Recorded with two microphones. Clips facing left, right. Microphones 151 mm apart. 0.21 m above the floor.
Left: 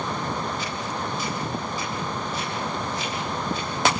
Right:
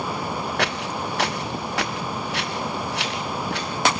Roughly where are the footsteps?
Right.